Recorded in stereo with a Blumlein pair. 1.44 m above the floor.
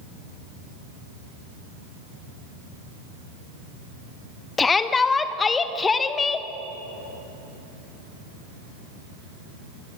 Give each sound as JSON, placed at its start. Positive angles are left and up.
{"t": 4.6, "sound": "a shout", "azimuth_deg": 15, "distance_m": 1.6}